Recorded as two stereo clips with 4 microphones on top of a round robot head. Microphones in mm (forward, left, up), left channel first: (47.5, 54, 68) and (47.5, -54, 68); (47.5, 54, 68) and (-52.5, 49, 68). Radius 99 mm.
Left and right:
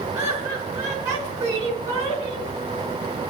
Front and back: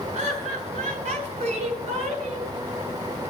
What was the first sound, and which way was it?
Laughter, 165° right.